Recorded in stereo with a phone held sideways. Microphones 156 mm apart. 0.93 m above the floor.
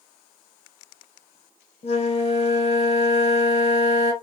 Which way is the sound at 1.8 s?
40° left (ahead or behind).